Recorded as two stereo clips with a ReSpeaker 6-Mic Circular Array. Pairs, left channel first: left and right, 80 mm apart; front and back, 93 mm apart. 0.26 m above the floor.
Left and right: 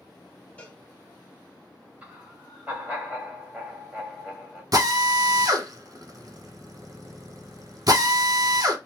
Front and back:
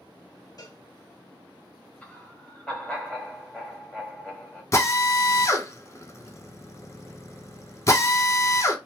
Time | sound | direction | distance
0.6 | a cowbell | 20° left | 0.9 m
2.0 | laughter | 60° right | 1.6 m
4.7 | a drill | 55° right | 0.7 m